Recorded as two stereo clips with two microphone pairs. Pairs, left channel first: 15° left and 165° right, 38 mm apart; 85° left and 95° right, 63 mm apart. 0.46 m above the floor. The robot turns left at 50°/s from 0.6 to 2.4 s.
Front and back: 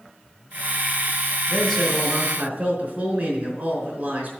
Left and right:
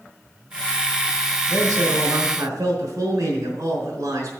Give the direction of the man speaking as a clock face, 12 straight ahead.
3 o'clock.